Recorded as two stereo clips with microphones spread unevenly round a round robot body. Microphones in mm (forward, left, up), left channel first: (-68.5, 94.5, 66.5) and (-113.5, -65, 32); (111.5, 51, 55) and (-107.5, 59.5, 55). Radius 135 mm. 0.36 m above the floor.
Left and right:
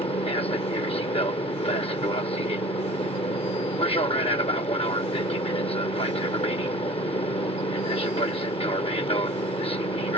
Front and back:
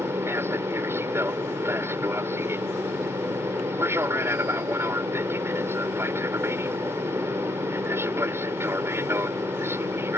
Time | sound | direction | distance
0.0 | an aircraft | 110° left | ?